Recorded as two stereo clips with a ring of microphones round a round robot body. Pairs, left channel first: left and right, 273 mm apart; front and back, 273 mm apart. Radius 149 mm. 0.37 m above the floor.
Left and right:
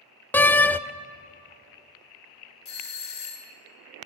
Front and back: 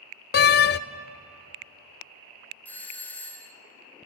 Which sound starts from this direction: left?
A doorbell, at 2.6 s.